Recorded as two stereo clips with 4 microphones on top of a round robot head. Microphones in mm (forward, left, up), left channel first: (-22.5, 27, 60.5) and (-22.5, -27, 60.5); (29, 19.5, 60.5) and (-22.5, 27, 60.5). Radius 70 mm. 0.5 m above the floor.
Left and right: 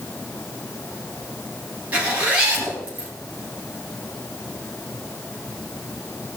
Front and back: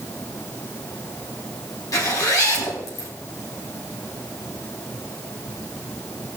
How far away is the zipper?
About 4 m.